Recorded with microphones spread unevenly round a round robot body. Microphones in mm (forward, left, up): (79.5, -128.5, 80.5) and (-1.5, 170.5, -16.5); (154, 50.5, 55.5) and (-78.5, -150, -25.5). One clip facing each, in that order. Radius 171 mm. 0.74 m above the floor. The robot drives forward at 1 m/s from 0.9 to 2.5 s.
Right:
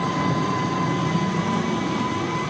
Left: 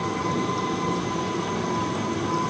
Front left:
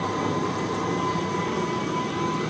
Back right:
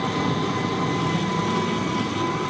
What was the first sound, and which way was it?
An engine running, 100° right.